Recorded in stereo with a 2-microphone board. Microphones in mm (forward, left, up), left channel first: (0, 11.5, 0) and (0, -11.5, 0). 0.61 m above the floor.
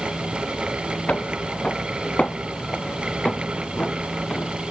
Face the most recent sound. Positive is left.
turn(degrees=55)  # may be behind; listen again after turning